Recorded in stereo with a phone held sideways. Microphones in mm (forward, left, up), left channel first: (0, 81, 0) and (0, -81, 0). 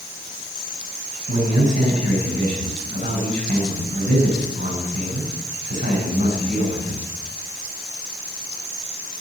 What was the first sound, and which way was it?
A man speaking, 55° right (ahead or behind).